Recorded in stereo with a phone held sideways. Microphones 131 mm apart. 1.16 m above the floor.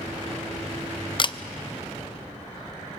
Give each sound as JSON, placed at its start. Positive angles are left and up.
{"t": 1.2, "sound": "a camera shutter", "side_deg": 40, "distance_m": 0.5}